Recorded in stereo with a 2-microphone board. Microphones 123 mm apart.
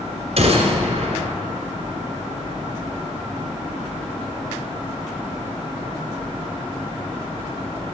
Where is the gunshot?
55° right (ahead or behind), 1.7 m.